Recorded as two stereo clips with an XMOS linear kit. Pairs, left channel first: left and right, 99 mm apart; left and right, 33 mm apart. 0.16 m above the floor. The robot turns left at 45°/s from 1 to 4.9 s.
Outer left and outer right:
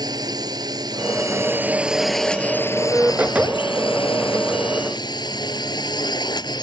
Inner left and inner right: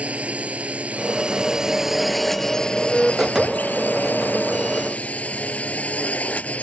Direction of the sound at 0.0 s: 130° right.